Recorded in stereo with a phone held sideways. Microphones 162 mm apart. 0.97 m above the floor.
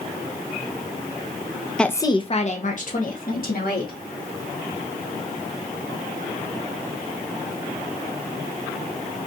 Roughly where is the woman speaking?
Centre.